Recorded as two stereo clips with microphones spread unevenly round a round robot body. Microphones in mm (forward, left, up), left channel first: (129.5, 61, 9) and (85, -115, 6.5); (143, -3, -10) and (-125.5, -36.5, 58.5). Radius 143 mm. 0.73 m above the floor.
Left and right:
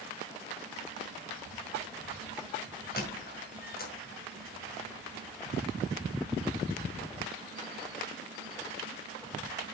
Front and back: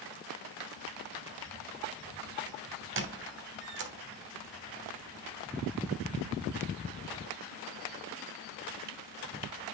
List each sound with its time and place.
3.0 s a squeak: 135° left, 1.1 m